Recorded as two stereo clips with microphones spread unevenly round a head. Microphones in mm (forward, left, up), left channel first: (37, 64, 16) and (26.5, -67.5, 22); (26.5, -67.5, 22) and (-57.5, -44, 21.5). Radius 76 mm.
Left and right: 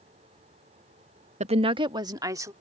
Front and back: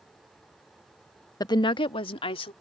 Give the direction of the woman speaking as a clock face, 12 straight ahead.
2 o'clock.